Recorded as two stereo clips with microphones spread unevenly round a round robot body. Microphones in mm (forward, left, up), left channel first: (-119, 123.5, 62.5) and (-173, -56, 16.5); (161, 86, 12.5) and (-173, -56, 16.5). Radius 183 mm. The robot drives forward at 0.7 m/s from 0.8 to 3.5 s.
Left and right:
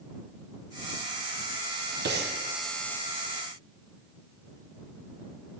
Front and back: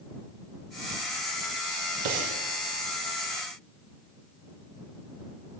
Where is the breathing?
140° right, 0.7 m; by 2.4 s 150° right, 0.9 m.